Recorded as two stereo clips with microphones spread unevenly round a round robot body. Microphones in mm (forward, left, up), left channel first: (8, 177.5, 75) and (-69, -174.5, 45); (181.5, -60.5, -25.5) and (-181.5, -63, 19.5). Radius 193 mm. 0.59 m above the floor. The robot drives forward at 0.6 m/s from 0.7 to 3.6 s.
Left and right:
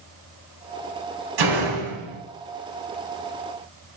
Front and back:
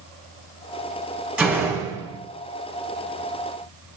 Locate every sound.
1.4 s a door slam: 95° right, 3 m; by 2.2 s 100° right, 3 m